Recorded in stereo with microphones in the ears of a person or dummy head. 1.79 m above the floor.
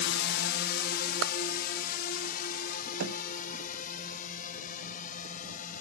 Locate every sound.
0.0 s a drone: 70° left (ahead or behind); by 5.8 s 50° left (ahead or behind)
1.2 s a clap: 85° right
3.0 s a thud: 80° right